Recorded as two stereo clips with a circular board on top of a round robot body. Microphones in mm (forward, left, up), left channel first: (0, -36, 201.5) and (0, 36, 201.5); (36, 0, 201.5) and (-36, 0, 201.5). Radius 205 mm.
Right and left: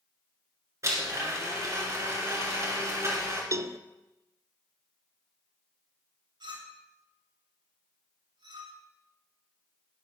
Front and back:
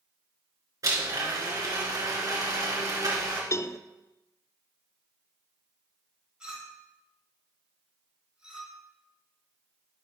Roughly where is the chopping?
No chopping in this recording.